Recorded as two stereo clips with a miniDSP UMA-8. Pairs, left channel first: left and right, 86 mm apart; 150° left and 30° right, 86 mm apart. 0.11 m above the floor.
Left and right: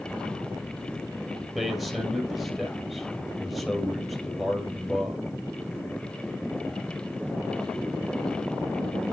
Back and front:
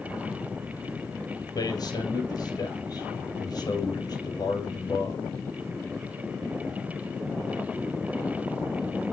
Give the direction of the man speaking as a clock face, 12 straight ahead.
6 o'clock.